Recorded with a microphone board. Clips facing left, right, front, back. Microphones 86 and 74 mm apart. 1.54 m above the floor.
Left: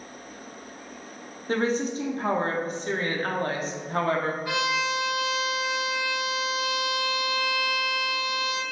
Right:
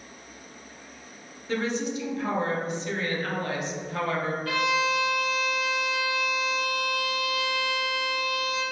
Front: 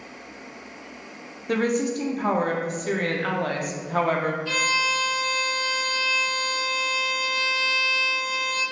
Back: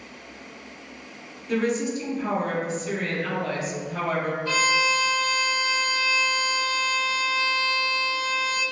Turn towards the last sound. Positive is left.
turn(degrees=155)